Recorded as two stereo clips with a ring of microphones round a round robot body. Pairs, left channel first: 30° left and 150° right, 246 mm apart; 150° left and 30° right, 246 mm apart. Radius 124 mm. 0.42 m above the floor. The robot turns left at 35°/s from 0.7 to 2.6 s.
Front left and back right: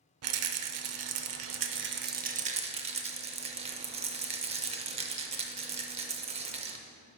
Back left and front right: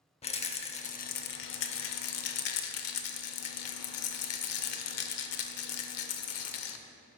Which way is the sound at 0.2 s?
145° right.